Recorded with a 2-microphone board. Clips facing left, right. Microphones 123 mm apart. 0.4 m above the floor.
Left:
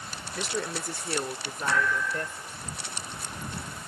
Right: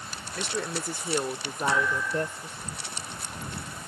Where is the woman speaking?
5° left (ahead or behind); by 2.7 s 30° right (ahead or behind).